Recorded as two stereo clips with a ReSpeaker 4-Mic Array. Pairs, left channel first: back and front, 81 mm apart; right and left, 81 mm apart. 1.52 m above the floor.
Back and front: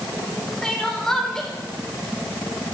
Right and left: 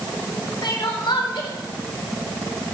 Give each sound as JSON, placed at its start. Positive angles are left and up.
{"t": 0.6, "sound": "crying", "azimuth_deg": -100, "distance_m": 4.0}